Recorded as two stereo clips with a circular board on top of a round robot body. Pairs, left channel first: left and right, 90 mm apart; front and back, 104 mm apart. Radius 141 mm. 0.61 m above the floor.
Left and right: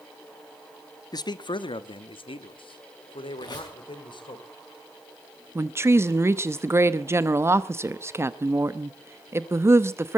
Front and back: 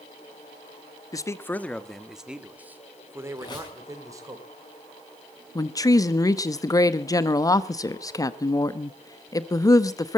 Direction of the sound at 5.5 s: 40° right.